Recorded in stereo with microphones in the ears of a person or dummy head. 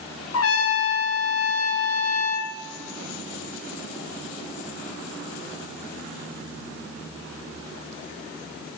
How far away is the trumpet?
About 0.7 m.